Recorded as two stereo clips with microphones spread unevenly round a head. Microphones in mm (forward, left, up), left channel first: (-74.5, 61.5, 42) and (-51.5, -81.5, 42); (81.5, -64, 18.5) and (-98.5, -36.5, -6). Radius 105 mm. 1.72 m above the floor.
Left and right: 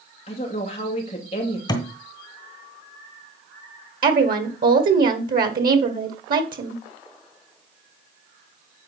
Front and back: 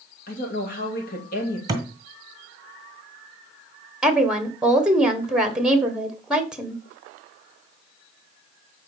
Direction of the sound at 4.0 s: 100° right.